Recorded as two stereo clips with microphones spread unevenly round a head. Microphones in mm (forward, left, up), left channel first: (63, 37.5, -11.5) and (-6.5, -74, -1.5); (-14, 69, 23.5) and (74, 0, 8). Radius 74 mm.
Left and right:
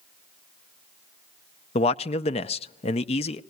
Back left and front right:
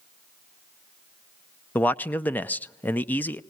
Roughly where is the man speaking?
Left.